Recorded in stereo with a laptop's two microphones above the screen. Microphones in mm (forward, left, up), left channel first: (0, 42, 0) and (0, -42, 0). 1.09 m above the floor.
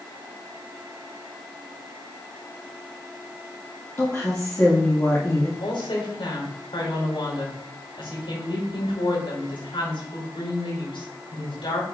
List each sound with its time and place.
4.0 s a woman speaking: 30° left (ahead or behind), 1.9 m
5.6 s a woman speaking: 80° left, 5 m